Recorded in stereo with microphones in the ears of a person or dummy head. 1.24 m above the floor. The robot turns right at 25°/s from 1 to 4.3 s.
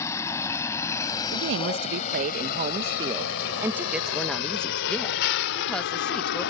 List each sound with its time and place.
0.0 s a vehicle: 15° left (ahead or behind); by 6.5 s 70° left (ahead or behind)
1.3 s a woman speaking: 75° right; by 6.5 s straight ahead